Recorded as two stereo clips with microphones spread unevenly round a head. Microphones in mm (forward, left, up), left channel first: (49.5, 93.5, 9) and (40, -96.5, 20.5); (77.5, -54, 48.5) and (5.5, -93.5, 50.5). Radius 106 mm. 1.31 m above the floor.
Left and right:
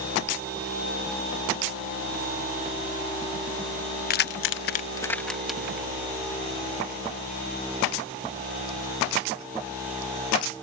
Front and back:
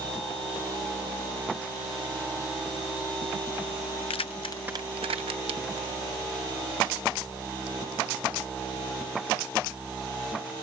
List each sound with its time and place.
4.1 s keys jangling: 50° left; by 5.9 s 175° right